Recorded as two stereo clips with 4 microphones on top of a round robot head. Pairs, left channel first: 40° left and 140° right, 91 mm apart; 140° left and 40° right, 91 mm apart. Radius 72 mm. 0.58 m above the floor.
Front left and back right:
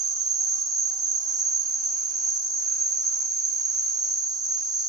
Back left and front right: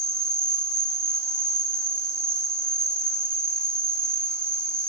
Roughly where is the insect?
Right.